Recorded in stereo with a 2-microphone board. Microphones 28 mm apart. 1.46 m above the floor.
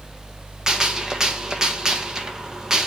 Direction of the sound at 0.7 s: 25° right (ahead or behind).